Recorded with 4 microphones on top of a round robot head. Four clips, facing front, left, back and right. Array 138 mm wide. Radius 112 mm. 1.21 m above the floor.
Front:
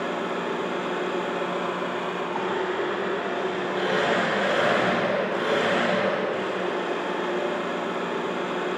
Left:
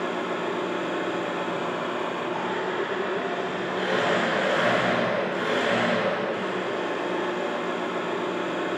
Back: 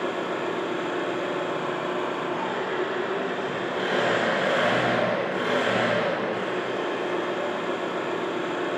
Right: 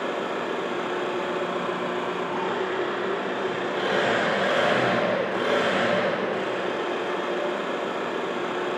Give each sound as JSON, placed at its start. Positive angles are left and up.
{"t": 0.0, "sound": "an engine running", "azimuth_deg": -70, "distance_m": 1.3}